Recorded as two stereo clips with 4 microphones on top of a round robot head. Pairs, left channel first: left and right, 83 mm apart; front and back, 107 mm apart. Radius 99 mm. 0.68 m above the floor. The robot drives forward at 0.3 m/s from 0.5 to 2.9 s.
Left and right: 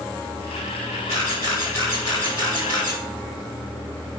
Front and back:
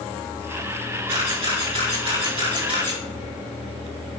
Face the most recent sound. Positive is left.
turn(degrees=155)